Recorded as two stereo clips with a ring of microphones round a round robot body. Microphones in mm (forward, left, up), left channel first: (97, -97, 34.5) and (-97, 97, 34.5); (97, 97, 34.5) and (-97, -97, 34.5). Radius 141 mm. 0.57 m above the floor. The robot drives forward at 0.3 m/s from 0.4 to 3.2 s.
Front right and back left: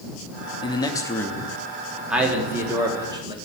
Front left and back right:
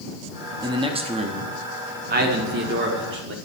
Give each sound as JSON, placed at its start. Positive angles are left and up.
{"t": 0.6, "sound": "a man speaking", "azimuth_deg": -85, "distance_m": 0.9}